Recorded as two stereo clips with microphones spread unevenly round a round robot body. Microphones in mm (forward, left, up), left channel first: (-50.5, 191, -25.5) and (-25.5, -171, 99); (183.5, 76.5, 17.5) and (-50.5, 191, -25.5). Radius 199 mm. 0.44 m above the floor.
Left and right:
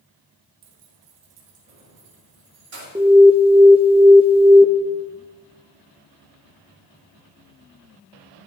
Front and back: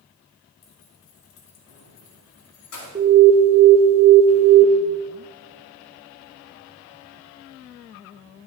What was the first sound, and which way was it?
Keys jangling, 65° right.